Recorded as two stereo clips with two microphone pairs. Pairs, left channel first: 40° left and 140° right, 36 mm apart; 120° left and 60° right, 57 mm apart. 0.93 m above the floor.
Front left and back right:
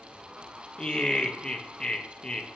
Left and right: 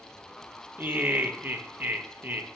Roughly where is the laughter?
Ahead right.